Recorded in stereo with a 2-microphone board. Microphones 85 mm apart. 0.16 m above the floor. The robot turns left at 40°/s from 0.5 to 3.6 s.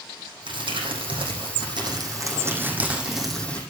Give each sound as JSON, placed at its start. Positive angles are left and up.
{"t": 0.5, "sound": "crumpling", "azimuth_deg": -70, "distance_m": 4.5}